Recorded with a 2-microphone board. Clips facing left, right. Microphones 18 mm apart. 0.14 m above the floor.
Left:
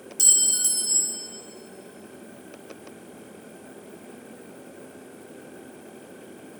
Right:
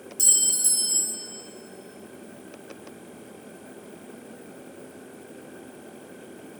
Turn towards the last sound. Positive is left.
turn(degrees=25)  # may be behind; listen again after turning